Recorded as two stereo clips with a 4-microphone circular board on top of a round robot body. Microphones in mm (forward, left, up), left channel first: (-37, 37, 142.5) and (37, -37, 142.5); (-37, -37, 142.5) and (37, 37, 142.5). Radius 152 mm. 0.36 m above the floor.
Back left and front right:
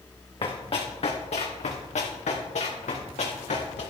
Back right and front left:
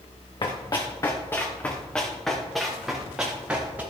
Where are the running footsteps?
175° left, 2.5 m; by 3.8 s 120° left, 4.5 m.